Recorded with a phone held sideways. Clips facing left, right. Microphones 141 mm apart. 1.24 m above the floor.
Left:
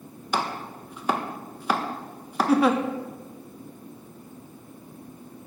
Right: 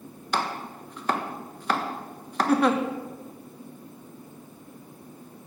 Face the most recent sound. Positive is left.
turn(degrees=5)  # may be behind; listen again after turning